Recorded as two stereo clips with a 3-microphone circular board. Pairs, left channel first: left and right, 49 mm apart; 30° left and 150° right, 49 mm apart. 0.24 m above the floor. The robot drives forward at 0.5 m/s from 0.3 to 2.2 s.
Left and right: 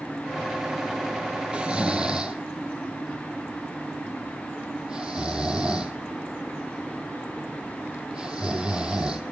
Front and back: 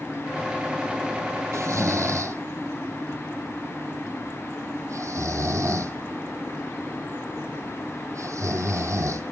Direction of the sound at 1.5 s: 160° right.